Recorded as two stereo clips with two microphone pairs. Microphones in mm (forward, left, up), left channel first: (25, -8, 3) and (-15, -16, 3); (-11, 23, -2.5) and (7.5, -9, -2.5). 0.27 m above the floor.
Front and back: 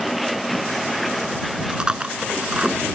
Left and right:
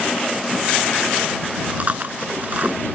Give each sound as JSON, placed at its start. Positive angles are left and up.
{"t": 1.7, "sound": "chewing", "azimuth_deg": -105}